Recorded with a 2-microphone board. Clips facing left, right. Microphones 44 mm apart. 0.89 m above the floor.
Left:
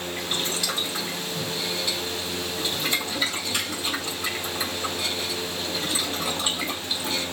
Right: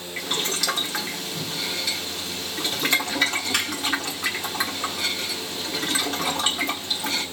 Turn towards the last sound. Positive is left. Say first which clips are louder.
# right 3 dB
turn(degrees=-75)  # may be behind; listen again after turning